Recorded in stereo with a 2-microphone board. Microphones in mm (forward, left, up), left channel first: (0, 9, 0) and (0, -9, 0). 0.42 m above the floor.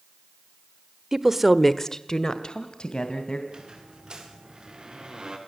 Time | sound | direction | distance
1.1 | a woman speaking | 35° right (ahead or behind) | 1.2 m
3.5 | a squeak | 45° right (ahead or behind) | 5 m